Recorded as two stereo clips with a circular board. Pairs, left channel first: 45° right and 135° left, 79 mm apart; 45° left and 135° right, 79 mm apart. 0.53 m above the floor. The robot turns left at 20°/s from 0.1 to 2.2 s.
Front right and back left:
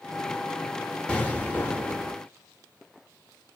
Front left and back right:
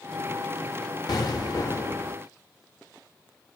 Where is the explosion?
30° left, 0.7 m; by 2.1 s 5° left, 0.7 m.